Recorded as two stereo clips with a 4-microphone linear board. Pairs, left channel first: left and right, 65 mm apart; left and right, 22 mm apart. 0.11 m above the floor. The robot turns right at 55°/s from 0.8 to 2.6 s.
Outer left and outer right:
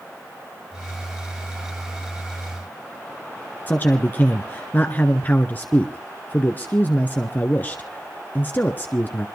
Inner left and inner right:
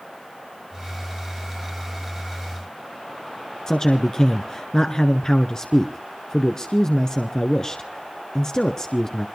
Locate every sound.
3.7 s a man speaking: 30° left (ahead or behind), 1.2 m